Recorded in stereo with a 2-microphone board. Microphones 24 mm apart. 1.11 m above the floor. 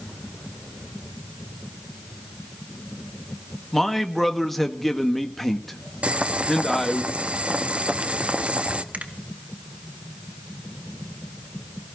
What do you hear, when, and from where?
3.7 s a man speaking: 10° left (ahead or behind), 1.4 m
6.0 s boiling: 55° right (ahead or behind), 0.9 m
8.9 s a finger snap: 75° right (ahead or behind), 2.0 m